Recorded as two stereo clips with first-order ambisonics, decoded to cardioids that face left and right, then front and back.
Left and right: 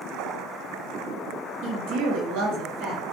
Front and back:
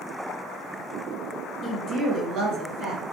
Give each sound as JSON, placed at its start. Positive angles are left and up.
{"t": 1.6, "sound": "a woman speaking", "azimuth_deg": -110, "distance_m": 0.5}